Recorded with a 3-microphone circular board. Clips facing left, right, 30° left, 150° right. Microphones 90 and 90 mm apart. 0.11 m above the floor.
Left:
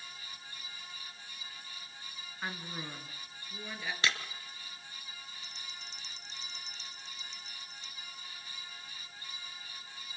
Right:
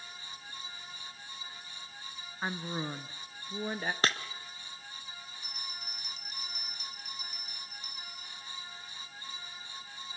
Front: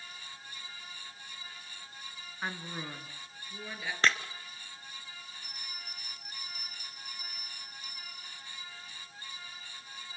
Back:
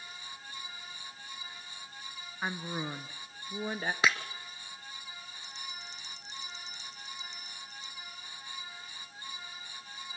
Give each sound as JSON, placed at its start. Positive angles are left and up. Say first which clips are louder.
{"t": 2.4, "sound": "a woman speaking", "louder": "right 5 dB, back 3 dB", "azimuth_deg": -90, "distance_m": 1.1}
{"t": 4.0, "sound": "breaking glass", "louder": "right 2 dB, even", "azimuth_deg": -70, "distance_m": 1.2}
{"t": 5.4, "sound": "a bell", "louder": "right 3 dB, back 2 dB", "azimuth_deg": 150, "distance_m": 1.3}